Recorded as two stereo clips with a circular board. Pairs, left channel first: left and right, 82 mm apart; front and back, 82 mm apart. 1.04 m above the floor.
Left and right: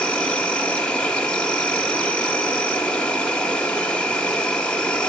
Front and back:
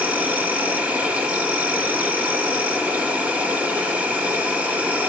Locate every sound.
0.0 s an insect: 150° left, 0.9 m